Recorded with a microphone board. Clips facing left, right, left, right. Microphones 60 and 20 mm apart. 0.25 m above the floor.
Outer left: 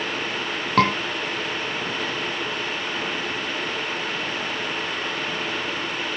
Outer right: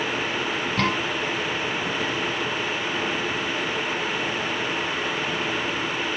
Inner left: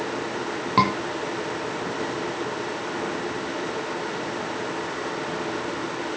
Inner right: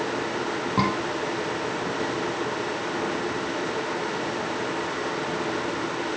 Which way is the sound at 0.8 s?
65° left (ahead or behind).